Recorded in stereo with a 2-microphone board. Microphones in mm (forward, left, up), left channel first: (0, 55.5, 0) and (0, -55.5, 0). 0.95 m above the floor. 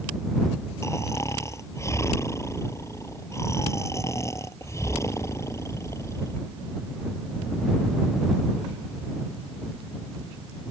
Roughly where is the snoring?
Left.